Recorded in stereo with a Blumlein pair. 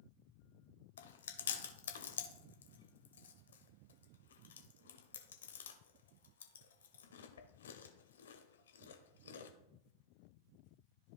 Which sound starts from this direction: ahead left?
Chewing, at 1.0 s.